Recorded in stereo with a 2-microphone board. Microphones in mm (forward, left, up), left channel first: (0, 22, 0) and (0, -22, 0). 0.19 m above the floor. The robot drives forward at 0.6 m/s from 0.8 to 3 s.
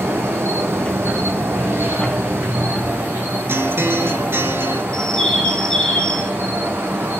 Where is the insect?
75° right (ahead or behind), 3 m; by 7.2 s 55° right (ahead or behind), 3.5 m.